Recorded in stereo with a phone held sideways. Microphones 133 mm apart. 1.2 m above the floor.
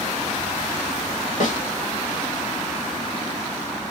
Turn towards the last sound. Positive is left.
turn(degrees=65)  # may be behind; listen again after turning